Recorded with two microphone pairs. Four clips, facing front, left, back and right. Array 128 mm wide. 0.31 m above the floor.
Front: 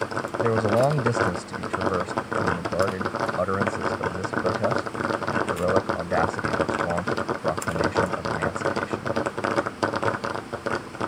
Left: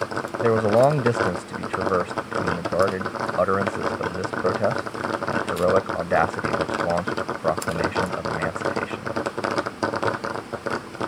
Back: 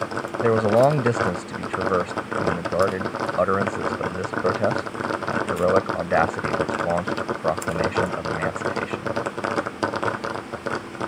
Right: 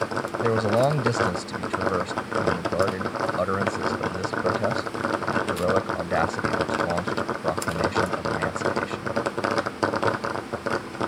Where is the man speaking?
130° left.